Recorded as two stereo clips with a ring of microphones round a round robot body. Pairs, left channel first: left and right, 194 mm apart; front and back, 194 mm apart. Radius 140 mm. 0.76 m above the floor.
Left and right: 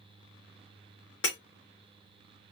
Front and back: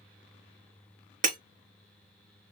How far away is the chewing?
I don't hear chewing.